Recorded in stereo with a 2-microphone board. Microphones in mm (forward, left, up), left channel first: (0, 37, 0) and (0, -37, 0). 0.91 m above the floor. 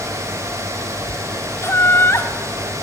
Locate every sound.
1.6 s laughter: 35° left (ahead or behind), 2.5 m